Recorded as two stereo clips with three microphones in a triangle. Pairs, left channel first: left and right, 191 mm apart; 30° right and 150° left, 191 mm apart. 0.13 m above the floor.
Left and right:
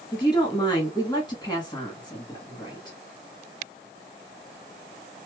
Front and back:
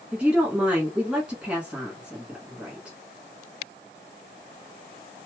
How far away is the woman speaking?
About 1.3 m.